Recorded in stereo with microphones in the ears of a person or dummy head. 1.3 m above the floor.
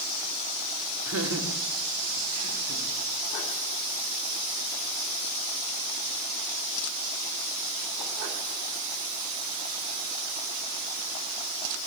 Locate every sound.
1.1 s laughter: 80° right, 4.5 m; by 2.9 s 85° right, 5.5 m